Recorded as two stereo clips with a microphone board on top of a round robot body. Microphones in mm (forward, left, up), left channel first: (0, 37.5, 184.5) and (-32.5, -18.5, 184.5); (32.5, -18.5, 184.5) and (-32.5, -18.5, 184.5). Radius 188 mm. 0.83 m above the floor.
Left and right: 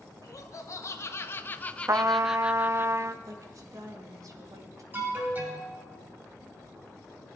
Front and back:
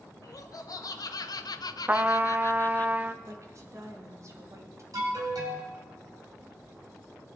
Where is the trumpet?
130° right, 0.8 m.